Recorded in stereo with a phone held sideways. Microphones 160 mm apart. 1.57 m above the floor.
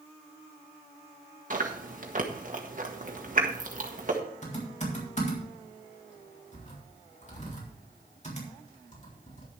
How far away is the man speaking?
No man speaking in this recording.